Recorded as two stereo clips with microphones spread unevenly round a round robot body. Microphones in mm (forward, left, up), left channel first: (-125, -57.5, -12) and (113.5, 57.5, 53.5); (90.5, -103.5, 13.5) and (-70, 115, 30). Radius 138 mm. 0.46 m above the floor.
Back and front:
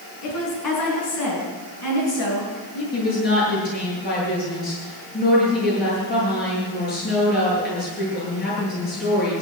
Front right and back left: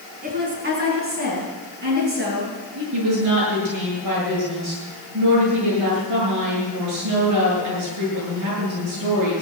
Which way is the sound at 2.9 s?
150° left.